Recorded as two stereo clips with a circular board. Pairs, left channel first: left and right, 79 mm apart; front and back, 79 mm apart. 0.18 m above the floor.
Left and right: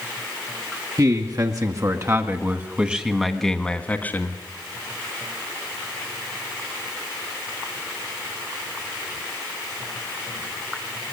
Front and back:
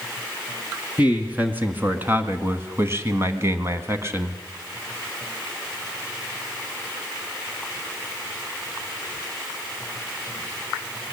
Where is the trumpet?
No trumpet in this recording.